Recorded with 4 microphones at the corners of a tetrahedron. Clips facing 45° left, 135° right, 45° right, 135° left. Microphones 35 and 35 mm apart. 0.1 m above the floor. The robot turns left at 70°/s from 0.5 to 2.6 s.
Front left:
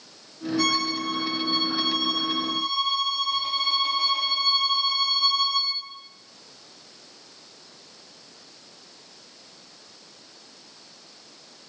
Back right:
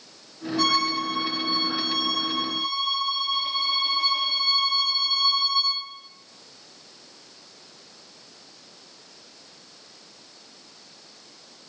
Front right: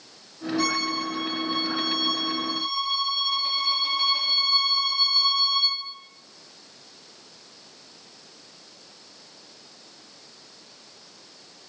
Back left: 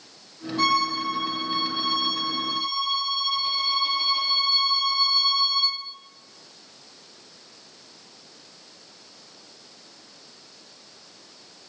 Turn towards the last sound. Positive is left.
turn(degrees=40)